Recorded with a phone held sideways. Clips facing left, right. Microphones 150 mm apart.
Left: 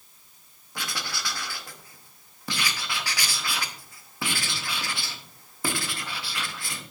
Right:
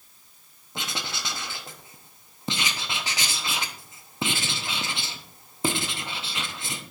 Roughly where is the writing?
Right.